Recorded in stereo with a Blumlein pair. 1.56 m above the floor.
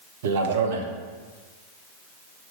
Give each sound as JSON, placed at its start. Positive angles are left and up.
{"t": 0.2, "sound": "a man speaking", "azimuth_deg": -55, "distance_m": 0.6}